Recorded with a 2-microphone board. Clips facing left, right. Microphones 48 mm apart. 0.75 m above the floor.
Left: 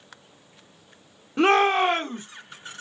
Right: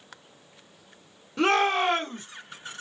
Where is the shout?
25° left (ahead or behind), 1.1 m.